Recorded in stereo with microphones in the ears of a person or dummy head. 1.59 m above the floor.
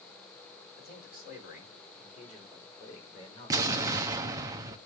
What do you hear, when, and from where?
0.8 s a man speaking: 50° left (ahead or behind), 4 m; by 4.3 s 20° left (ahead or behind), 3.5 m
3.5 s an explosion: 20° right (ahead or behind), 0.7 m